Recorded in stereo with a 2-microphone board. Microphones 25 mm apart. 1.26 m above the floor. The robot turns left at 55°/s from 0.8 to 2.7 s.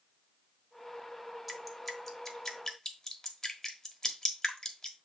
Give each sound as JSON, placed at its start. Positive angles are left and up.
{"t": 1.5, "sound": "dripping", "side_deg": -10, "distance_m": 1.1}